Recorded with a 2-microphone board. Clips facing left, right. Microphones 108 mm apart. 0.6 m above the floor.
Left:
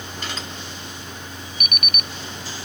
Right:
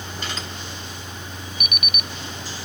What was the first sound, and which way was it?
An alarm clock, 50° left (ahead or behind).